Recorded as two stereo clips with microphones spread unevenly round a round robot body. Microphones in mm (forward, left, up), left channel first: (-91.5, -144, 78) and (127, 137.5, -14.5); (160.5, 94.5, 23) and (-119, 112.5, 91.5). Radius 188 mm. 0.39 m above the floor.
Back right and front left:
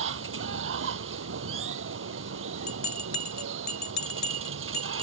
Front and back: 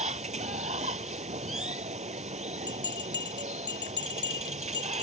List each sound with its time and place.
0.0 s running water: 110° left
2.7 s a bell: 80° right